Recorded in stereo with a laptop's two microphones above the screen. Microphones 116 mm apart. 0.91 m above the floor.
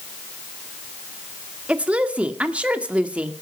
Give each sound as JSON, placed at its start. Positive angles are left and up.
{"t": 1.7, "sound": "a woman speaking", "side_deg": -10, "distance_m": 1.9}